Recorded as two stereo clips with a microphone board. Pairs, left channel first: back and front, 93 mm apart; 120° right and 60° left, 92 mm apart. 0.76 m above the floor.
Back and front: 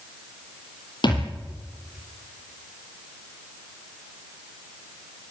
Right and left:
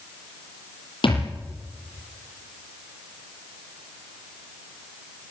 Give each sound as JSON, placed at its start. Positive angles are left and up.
{"t": 1.0, "sound": "a thud", "azimuth_deg": -145, "distance_m": 7.5}